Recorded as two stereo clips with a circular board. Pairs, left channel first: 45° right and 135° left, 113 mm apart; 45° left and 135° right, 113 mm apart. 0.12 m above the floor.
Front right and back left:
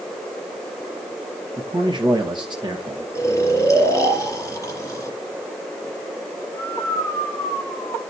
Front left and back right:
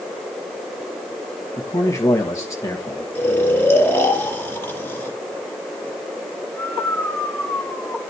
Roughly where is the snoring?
Ahead.